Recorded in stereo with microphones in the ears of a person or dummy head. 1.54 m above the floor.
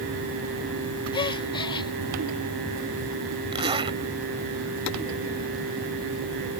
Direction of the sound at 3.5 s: 25° right (ahead or behind).